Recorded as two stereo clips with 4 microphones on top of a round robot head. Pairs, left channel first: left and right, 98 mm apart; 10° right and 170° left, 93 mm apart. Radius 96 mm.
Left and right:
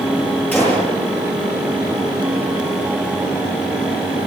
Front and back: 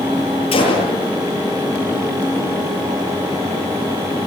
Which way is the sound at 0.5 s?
10° left.